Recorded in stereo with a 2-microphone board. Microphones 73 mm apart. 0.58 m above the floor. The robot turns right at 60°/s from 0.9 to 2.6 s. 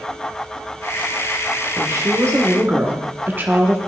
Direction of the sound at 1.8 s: 95° right.